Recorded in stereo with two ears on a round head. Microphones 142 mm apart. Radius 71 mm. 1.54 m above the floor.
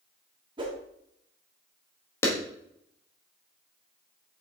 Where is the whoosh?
30° right (ahead or behind), 1.7 m.